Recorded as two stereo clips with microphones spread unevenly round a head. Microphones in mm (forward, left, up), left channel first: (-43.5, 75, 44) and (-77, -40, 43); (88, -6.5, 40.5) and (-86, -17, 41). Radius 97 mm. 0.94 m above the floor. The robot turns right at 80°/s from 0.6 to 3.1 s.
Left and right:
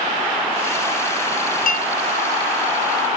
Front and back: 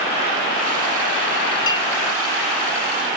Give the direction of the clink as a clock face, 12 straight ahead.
10 o'clock.